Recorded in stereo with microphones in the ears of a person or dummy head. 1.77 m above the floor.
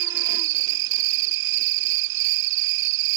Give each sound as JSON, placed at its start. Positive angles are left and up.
{"t": 0.0, "sound": "an insect", "side_deg": -70}